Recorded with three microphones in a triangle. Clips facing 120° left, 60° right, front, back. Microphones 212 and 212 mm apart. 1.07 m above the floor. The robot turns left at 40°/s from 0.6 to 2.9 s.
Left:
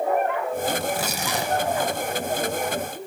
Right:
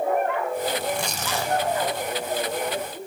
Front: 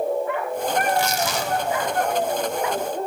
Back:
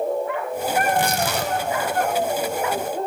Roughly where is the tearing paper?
Behind right.